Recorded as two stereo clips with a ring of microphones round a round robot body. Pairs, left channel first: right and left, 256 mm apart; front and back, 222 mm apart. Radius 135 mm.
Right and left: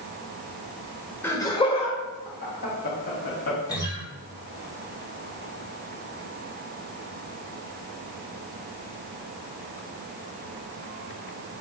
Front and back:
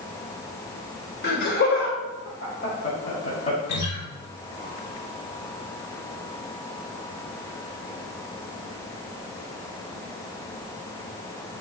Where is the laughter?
10° right, 1.6 m; by 3.6 s 60° right, 3 m.